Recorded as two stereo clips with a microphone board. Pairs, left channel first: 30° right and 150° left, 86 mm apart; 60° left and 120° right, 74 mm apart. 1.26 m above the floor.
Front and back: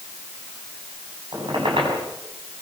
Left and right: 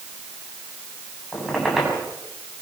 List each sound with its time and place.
1.3 s a squeak: 150° left, 6.5 m